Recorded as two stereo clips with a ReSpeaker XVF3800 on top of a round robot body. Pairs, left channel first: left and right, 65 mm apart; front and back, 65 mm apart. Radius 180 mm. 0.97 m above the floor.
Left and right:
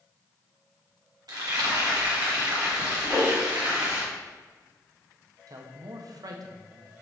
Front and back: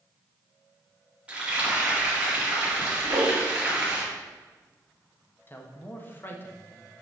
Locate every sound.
1.3 s frying: 110° right, 2 m
3.0 s a whoosh: 160° right, 1.0 m
5.5 s a man speaking: 60° right, 1.1 m